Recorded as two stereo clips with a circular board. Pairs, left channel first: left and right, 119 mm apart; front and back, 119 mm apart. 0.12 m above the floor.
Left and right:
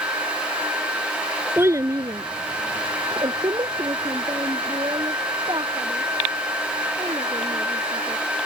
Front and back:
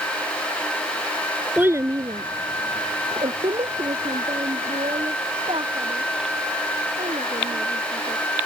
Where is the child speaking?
125° right; by 8.2 s 145° right.